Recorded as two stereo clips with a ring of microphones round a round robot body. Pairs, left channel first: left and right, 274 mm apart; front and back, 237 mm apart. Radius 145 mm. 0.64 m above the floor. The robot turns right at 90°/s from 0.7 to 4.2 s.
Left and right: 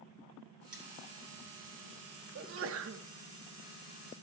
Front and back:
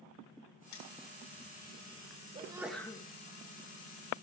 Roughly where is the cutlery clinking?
Ahead.